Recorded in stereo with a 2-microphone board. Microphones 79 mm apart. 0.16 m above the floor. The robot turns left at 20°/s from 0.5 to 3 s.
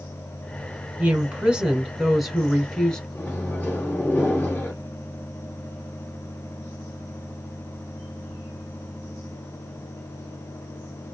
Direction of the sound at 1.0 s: 150° right.